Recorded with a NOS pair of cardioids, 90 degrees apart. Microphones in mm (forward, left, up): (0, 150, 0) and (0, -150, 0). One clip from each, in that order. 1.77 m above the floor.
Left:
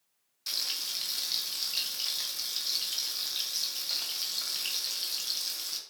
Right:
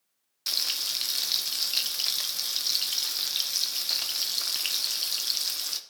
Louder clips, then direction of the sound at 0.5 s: Right 4 dB; 40° right.